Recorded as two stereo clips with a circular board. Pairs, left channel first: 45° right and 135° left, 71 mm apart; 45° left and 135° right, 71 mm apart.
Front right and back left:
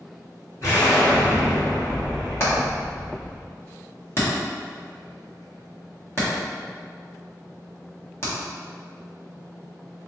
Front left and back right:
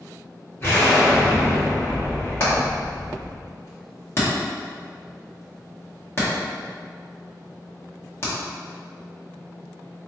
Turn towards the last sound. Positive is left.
turn(degrees=0)